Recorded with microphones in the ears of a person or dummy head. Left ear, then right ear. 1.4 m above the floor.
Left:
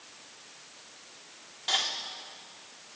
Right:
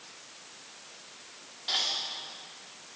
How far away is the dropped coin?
About 1.4 m.